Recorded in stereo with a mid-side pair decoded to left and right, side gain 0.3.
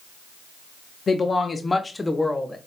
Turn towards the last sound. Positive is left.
turn(degrees=15)